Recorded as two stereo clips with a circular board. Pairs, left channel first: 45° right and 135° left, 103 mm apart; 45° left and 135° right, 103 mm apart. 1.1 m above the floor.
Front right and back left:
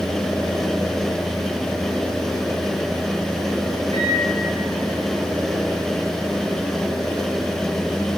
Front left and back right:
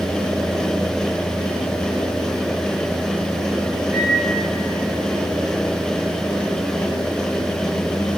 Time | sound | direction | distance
3.9 | a microwave | 150° left | 9.5 m